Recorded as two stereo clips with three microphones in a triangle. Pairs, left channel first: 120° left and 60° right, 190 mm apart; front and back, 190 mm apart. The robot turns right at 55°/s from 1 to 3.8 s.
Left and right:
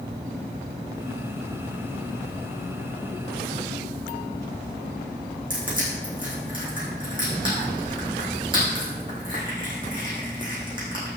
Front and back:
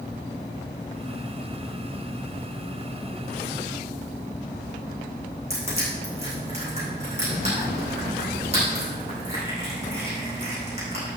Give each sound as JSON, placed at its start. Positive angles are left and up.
{"t": 5.5, "sound": "crushing", "azimuth_deg": -125, "distance_m": 6.0}